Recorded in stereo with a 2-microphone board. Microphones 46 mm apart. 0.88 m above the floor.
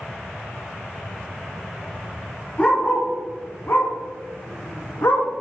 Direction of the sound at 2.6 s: 30° left (ahead or behind).